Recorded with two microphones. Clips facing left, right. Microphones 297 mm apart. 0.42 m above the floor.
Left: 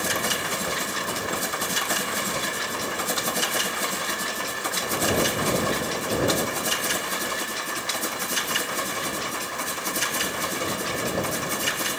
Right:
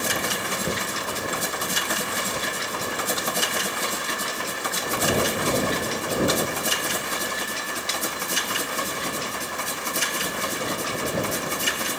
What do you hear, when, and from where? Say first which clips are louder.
0.6 s knocking: right 2 dB; 35° right (ahead or behind)